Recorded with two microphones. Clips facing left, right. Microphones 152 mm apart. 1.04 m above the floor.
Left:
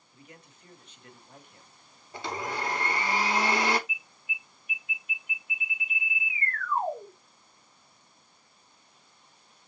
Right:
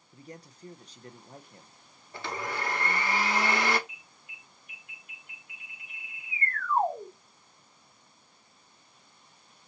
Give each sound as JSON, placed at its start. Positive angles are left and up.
{"t": 0.1, "sound": "a man speaking", "side_deg": -40, "distance_m": 0.8}
{"t": 2.1, "sound": "a blender", "side_deg": 20, "distance_m": 1.0}
{"t": 3.9, "sound": "an alarm", "side_deg": -60, "distance_m": 3.5}